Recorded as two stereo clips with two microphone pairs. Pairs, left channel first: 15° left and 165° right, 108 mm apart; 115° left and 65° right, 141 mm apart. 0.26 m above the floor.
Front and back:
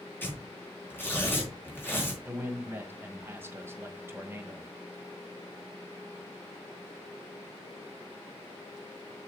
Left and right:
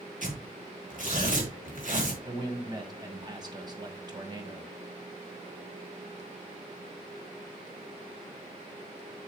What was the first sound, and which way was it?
Tearing paper, 55° right.